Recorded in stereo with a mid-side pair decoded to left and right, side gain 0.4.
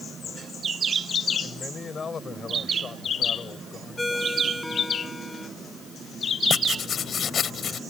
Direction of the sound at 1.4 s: 40° left.